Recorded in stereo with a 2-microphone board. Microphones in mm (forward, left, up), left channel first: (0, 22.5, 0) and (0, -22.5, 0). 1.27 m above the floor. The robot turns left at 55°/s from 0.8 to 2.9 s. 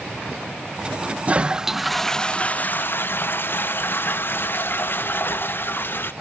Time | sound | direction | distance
1.3 | a toilet flushing | 145° right | 0.6 m